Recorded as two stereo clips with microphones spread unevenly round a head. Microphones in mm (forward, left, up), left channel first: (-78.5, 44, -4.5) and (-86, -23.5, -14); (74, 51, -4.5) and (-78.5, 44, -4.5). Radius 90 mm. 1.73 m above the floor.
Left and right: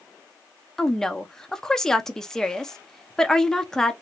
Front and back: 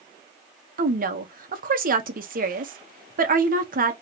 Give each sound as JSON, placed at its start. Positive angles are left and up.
{"t": 0.8, "sound": "a woman speaking", "azimuth_deg": 160, "distance_m": 1.0}